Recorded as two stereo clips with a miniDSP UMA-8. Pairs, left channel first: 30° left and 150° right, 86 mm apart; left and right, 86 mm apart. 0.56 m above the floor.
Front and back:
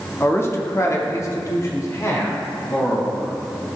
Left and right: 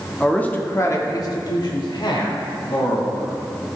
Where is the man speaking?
15° left, 0.6 m; by 3.4 s 85° left, 1.8 m.